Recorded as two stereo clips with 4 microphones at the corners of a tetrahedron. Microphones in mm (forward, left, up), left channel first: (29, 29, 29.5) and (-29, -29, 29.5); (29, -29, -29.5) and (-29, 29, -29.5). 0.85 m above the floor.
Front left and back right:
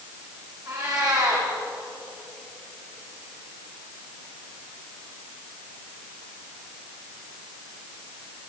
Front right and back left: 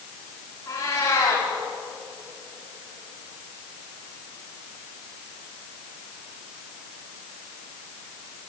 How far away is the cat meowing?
About 8.5 m.